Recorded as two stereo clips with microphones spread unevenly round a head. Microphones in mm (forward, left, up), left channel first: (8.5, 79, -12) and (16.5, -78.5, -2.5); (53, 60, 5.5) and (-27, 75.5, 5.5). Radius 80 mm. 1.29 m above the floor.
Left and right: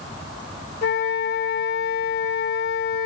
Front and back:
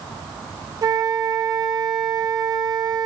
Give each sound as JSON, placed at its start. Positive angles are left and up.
{"t": 0.8, "sound": "a flute", "azimuth_deg": 125, "distance_m": 0.6}